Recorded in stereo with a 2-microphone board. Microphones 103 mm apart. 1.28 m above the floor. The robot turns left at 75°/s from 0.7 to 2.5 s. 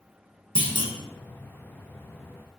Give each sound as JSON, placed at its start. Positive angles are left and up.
{"t": 0.6, "sound": "a clunk", "side_deg": -55, "distance_m": 1.0}